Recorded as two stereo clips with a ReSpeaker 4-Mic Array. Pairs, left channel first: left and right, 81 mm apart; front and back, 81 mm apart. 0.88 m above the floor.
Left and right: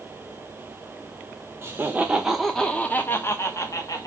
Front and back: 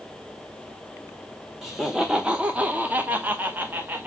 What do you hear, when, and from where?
1.6 s laughter: 100° right, 0.8 m; by 4.1 s 120° left, 1.2 m